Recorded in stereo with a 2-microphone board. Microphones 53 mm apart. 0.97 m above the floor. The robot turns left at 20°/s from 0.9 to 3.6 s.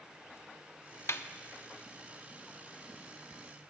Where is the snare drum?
55° left (ahead or behind), 0.6 m; by 1.3 s 60° left (ahead or behind), 0.6 m.